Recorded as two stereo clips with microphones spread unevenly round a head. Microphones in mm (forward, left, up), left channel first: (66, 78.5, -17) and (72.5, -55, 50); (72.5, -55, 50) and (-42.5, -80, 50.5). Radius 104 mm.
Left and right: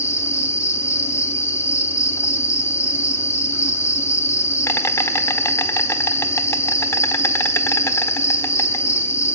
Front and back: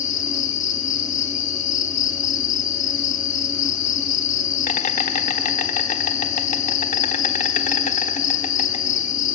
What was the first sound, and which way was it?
An insect, 10° left.